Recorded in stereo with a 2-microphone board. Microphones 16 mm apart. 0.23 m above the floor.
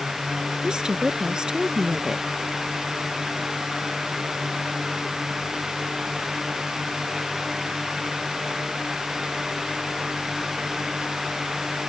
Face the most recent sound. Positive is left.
turn(degrees=-50)  # may be behind; listen again after turning